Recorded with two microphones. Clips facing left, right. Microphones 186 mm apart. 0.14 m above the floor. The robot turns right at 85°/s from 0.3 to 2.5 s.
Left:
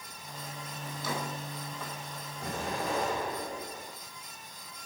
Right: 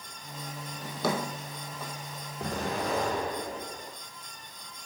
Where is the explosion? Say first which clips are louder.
Right 3 dB; 65° right (ahead or behind), 2.0 m; by 4.0 s 75° right (ahead or behind), 2.0 m.